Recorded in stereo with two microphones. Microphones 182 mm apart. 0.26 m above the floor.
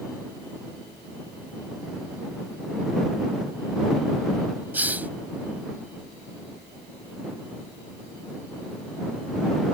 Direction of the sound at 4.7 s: 10° right (ahead or behind).